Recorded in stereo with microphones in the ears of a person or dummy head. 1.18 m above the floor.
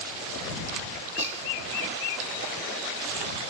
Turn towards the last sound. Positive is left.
turn(degrees=-40)  # may be behind; listen again after turning